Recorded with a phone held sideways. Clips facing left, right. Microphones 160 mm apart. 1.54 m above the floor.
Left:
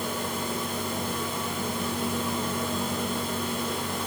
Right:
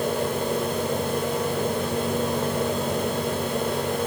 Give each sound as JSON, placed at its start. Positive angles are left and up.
{"t": 0.0, "sound": "a fan", "side_deg": -60, "distance_m": 2.0}